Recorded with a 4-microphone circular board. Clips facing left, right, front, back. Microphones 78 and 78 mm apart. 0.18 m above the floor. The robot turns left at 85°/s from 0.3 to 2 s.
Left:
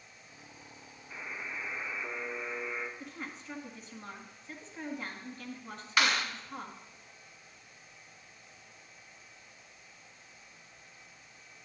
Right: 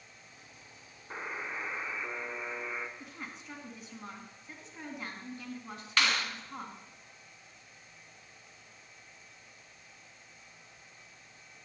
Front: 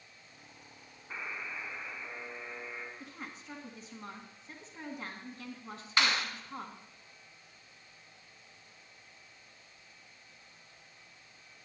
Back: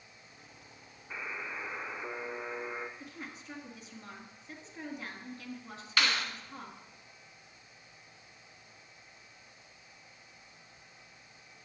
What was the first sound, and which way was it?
A buzzer, 85° right.